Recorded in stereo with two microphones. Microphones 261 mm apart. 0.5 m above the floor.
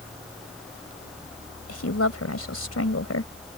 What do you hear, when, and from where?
1.7 s a woman speaking: 70° left (ahead or behind)